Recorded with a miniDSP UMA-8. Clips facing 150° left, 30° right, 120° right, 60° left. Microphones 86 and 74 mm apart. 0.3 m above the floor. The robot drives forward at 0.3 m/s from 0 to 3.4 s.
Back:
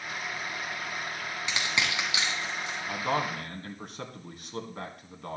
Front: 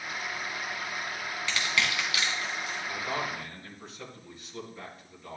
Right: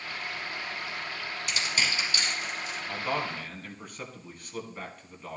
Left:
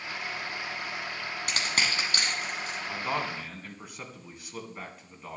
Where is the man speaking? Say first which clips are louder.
Back 6 dB, right 1 dB; 140° left, 2.0 m.